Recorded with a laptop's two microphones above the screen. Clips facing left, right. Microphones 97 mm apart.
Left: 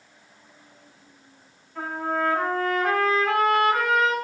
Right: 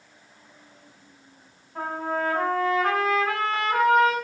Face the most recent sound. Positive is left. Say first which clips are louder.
# left 1 dB
turn(degrees=-40)  # may be behind; listen again after turning